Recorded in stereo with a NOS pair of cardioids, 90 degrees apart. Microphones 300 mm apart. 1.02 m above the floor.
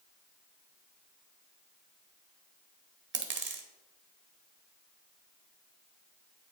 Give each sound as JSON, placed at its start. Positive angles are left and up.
{"t": 3.1, "sound": "a dropped coin", "azimuth_deg": -40, "distance_m": 1.2}